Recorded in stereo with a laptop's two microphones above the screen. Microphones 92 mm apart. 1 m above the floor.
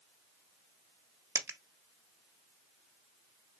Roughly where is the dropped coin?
Right.